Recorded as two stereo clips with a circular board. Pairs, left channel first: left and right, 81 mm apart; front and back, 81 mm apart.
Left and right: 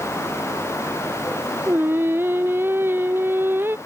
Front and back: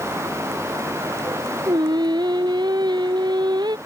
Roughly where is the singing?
Behind right.